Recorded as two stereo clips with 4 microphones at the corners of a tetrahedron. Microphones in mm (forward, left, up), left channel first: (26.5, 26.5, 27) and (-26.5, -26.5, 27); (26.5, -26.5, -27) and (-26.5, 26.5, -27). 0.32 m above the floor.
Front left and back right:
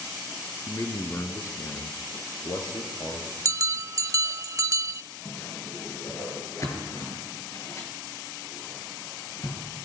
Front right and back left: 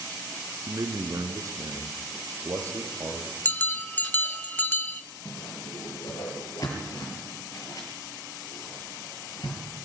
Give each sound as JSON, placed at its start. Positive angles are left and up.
{"t": 0.7, "sound": "a man speaking", "azimuth_deg": 105, "distance_m": 3.0}
{"t": 3.5, "sound": "a bell", "azimuth_deg": -105, "distance_m": 0.6}
{"t": 5.2, "sound": "a whoosh", "azimuth_deg": -5, "distance_m": 7.0}